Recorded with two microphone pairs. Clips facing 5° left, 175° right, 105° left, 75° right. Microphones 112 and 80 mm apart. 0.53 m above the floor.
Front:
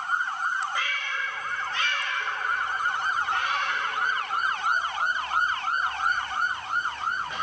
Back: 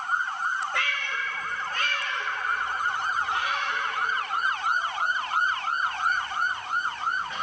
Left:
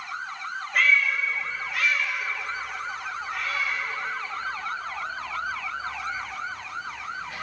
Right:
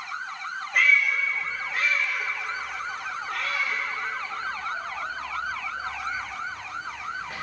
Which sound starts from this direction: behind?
A cat meowing, at 0.7 s.